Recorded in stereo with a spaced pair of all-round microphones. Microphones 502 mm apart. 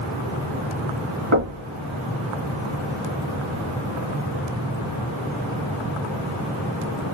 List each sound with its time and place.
1.3 s knocking: 75° right (ahead or behind), 2.0 m